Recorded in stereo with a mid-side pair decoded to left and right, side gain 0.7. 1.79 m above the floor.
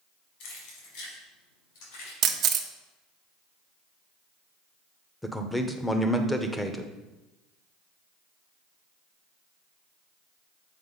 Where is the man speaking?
5° left, 0.9 m.